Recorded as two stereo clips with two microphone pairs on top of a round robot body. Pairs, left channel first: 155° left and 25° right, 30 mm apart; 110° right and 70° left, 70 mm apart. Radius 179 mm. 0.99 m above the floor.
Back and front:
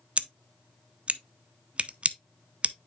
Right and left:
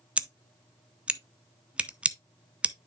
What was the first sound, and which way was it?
Scissors, 5° right.